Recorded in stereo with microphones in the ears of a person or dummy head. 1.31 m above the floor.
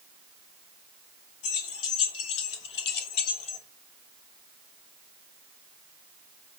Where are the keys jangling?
80° left, 2.5 m; by 3.6 s 30° left (ahead or behind), 1.1 m.